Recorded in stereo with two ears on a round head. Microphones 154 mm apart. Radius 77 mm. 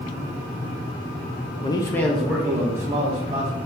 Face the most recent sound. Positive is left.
turn(degrees=-25)  # may be behind; listen again after turning